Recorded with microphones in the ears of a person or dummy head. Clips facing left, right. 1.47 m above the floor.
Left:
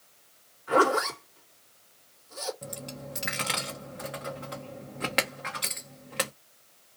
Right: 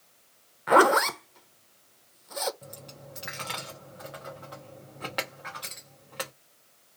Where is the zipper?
70° right (ahead or behind), 1.0 m.